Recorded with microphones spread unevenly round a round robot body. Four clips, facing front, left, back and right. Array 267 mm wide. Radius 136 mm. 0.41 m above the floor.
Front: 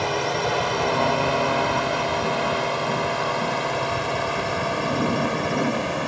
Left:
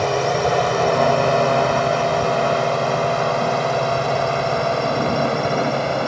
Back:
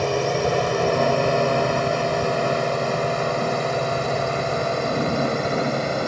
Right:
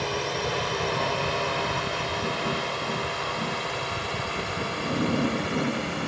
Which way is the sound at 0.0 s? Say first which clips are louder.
Left 10 dB, back 2 dB; 125° left.